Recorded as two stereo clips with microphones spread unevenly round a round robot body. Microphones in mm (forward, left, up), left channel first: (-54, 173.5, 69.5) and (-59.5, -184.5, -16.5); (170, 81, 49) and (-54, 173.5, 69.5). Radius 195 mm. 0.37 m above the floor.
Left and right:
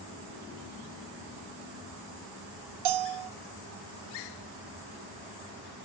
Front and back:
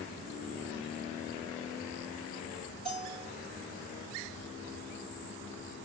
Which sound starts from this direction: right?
A bell, at 2.9 s.